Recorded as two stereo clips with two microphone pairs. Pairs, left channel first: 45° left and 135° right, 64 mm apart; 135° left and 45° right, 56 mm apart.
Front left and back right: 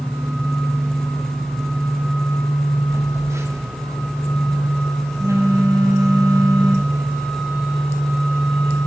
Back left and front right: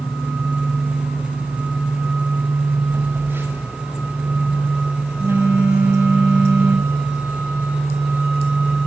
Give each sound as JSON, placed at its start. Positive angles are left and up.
{"t": 2.9, "sound": "a phone buzzing", "azimuth_deg": -90, "distance_m": 6.0}